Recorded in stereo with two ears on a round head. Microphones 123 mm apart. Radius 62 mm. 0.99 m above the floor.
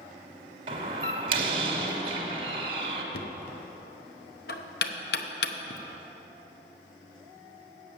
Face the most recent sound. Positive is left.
turn(degrees=75)  # may be behind; listen again after turning